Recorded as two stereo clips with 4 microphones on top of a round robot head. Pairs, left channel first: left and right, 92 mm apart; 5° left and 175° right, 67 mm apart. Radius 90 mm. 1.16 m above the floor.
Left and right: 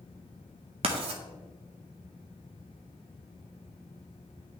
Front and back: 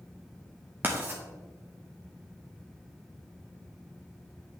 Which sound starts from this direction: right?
Writing, at 0.8 s.